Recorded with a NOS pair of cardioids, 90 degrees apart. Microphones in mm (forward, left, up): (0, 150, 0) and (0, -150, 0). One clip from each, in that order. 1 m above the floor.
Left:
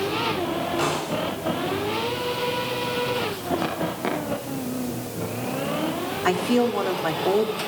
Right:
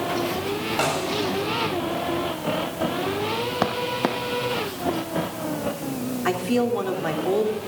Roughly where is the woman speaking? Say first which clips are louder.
Left 1 dB; ahead left.